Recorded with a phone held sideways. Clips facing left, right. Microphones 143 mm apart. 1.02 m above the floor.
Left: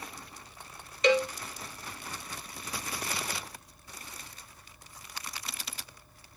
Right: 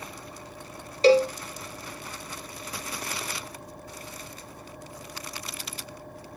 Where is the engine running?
70° right (ahead or behind).